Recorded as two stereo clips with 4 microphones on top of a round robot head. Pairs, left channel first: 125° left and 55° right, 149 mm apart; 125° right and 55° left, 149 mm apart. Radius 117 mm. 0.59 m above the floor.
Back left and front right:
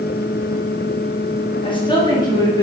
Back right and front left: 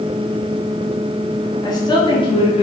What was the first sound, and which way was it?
A woman speaking, 175° left.